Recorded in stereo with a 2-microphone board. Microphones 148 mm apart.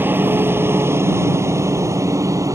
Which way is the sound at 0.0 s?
15° right (ahead or behind).